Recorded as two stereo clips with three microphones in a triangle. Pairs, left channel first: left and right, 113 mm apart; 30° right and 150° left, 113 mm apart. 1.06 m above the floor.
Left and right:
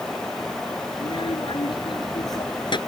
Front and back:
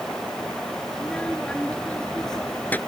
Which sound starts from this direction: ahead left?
A child speaking, at 0.9 s.